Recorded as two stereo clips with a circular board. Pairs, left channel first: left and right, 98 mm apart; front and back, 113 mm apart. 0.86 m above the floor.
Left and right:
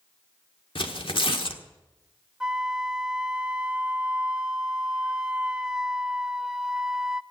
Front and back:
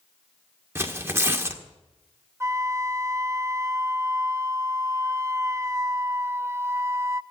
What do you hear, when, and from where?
0.8 s tearing paper: 115° left, 1.4 m
2.4 s a flute: 165° right, 0.5 m